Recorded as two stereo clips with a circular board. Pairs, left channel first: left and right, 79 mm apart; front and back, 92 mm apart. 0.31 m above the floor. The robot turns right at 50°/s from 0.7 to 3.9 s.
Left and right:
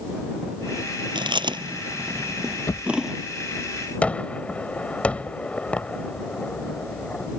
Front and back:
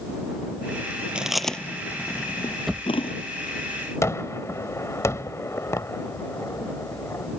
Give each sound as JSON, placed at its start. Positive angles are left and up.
{"t": 1.1, "sound": "chewing", "azimuth_deg": -100}
{"t": 2.7, "sound": "a drawer", "azimuth_deg": 90}
{"t": 4.0, "sound": "a gunshot", "azimuth_deg": 30}